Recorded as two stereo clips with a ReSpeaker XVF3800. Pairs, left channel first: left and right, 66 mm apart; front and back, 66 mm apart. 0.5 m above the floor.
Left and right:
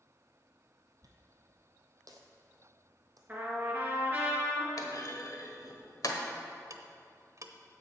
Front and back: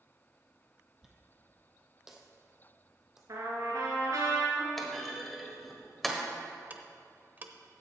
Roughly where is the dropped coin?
Right.